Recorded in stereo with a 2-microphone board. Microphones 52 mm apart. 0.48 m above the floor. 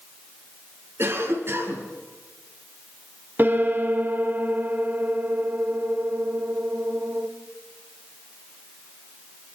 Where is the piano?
45° right (ahead or behind), 1.8 m.